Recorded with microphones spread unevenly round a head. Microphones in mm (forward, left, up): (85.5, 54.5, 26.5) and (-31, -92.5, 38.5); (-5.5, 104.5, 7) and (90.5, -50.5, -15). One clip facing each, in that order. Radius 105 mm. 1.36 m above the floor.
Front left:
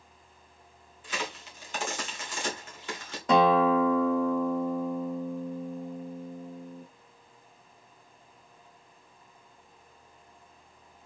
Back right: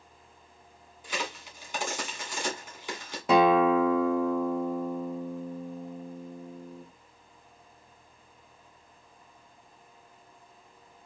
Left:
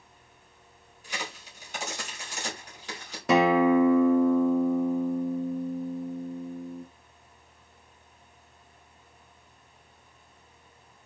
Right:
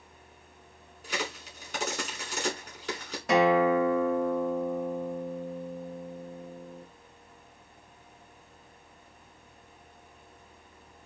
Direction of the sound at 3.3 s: 145° left.